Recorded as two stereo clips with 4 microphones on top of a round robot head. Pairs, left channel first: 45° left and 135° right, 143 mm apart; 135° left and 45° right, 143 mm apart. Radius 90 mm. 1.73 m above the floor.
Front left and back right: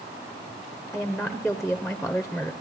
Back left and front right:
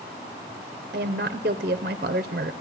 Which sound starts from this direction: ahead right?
A woman speaking, at 0.9 s.